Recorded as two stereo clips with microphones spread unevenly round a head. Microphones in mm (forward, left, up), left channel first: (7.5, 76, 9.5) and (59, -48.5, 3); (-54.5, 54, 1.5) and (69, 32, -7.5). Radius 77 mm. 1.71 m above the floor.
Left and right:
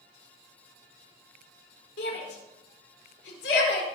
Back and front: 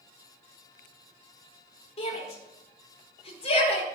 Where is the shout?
135° left, 4.5 m.